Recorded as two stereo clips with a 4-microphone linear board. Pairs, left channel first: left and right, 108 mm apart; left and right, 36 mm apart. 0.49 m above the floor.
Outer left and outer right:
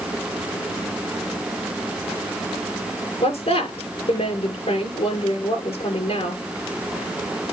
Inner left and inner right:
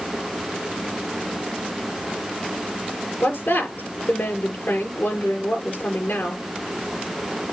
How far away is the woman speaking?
About 9 m.